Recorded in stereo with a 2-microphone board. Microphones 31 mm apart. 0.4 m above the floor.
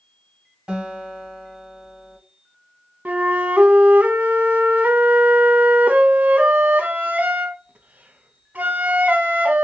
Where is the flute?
70° right (ahead or behind), 0.6 m.